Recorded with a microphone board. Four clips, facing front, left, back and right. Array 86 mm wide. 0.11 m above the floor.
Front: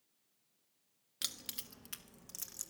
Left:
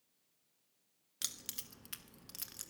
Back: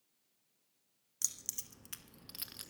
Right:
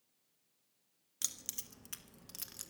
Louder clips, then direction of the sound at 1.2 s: Left 1 dB, front 5 dB; 20° left.